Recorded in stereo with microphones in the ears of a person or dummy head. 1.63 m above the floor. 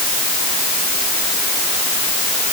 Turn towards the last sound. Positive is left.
No sound to turn to.